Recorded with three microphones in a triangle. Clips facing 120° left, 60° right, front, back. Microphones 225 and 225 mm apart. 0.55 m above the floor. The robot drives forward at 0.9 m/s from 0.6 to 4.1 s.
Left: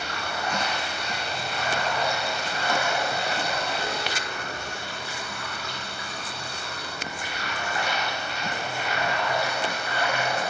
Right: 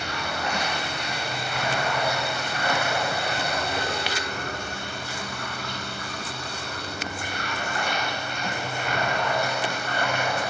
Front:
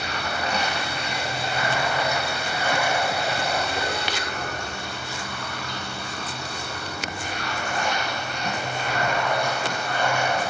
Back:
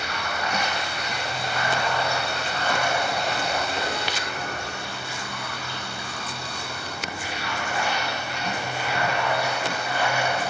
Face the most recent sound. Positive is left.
turn(degrees=-100)